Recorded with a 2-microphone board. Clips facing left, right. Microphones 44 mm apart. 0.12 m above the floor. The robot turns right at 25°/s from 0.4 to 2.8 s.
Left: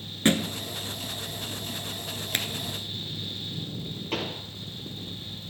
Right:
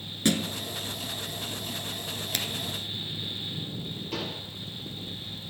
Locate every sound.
0.2 s a thud: 35° left (ahead or behind), 0.8 m
2.3 s a finger snap: 35° left (ahead or behind), 1.3 m
4.1 s a pop: 55° left (ahead or behind), 2.5 m